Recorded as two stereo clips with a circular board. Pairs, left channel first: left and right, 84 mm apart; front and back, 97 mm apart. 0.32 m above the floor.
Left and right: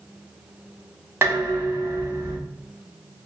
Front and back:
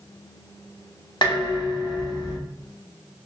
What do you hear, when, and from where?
1.2 s dishes clattering: 30° right, 1.5 m